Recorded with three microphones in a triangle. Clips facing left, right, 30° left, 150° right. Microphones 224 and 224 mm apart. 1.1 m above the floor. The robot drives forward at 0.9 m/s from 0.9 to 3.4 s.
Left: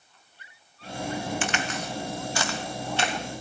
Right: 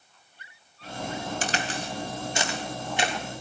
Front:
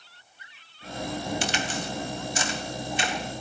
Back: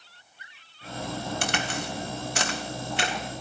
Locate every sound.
1.4 s a crack: 135° right, 1.0 m; by 3.1 s 165° right, 2 m